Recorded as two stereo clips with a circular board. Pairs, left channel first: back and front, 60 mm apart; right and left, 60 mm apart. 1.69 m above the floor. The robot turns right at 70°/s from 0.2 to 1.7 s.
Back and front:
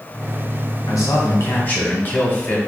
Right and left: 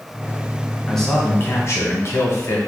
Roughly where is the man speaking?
Behind.